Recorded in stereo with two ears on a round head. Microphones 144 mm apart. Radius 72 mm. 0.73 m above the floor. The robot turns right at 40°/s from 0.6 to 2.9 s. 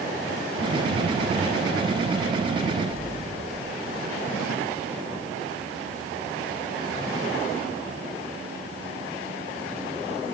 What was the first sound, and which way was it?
An explosion, 15° right (ahead or behind).